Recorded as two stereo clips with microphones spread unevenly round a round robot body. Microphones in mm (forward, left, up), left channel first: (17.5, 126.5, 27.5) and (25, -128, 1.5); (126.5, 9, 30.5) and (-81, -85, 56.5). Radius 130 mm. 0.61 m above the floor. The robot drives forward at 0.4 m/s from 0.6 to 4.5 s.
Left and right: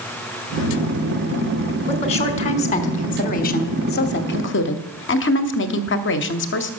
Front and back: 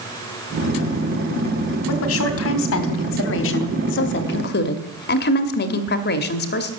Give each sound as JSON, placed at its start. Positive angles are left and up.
{"t": 1.9, "sound": "a woman speaking", "azimuth_deg": 20, "distance_m": 1.8}